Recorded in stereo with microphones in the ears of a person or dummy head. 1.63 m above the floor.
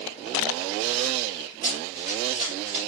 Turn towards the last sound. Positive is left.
turn(degrees=-45)  # may be behind; listen again after turning